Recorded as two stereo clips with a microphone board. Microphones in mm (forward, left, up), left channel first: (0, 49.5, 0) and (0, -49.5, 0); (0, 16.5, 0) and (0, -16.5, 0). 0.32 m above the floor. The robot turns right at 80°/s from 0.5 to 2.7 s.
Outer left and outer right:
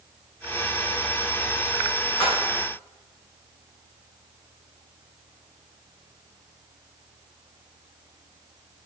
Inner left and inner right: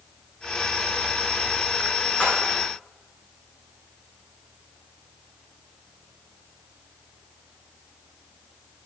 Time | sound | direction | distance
2.2 | a splash | 60° left (ahead or behind) | 7 m